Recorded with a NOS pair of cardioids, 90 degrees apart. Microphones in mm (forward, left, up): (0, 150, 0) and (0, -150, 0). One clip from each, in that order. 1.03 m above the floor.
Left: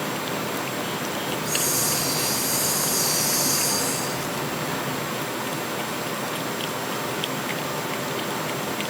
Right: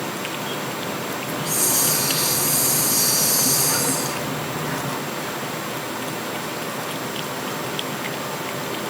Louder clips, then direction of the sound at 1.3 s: Right 2 dB; 35° right.